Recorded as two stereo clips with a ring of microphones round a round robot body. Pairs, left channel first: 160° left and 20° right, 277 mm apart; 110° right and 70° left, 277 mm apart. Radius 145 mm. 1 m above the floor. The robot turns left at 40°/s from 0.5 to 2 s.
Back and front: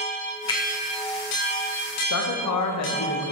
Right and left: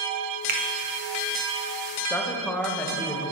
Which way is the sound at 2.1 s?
165° left.